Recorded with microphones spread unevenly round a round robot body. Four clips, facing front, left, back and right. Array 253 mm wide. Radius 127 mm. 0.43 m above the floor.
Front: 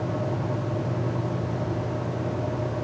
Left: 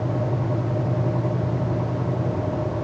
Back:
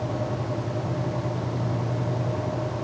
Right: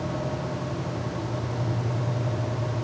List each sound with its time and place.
Only background noise.